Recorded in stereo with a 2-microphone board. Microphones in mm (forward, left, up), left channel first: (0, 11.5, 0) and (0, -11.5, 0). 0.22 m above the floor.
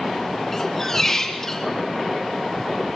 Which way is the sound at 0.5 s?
15° left (ahead or behind).